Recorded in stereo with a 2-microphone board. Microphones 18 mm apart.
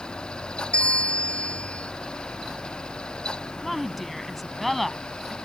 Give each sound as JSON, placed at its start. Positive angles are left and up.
{"t": 0.7, "sound": "a bell", "side_deg": 85}
{"t": 3.6, "sound": "a woman speaking", "side_deg": 5}